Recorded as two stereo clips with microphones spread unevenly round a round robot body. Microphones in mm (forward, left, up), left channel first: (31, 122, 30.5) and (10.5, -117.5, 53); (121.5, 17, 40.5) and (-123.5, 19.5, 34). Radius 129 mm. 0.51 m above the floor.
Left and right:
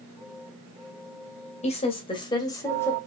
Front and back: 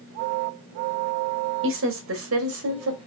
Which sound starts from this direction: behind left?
A woman speaking, at 1.6 s.